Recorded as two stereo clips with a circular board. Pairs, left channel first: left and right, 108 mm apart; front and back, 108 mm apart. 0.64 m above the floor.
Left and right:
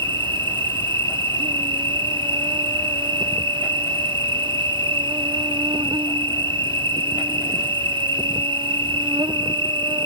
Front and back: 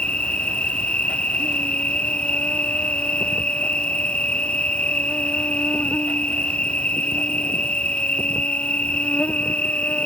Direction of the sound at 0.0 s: 75° right.